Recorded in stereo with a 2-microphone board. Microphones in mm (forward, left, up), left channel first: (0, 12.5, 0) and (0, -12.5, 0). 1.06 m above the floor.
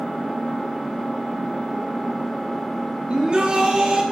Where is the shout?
35° right (ahead or behind), 1.5 m.